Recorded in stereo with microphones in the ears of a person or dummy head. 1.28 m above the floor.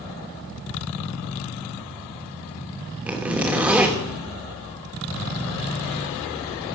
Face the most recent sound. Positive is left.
turn(degrees=-5)  # may be behind; listen again after turning